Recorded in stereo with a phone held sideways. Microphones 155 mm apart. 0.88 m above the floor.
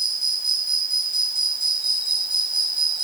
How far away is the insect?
About 1.3 m.